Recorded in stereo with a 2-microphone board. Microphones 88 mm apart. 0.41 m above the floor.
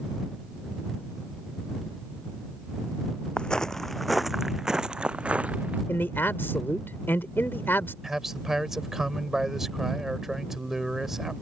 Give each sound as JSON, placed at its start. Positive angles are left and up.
{"t": 3.4, "sound": "footsteps", "side_deg": 10}
{"t": 5.9, "sound": "a man speaking", "side_deg": 25}
{"t": 8.0, "sound": "a man speaking", "side_deg": -5}